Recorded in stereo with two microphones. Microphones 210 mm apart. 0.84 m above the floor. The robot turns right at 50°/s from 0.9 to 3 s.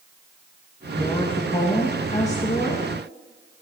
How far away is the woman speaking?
About 1.1 m.